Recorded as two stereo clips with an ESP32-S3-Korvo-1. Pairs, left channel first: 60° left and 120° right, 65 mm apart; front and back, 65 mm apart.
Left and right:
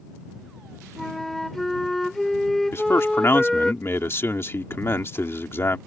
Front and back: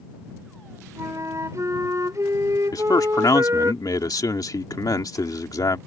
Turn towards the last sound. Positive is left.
turn(degrees=10)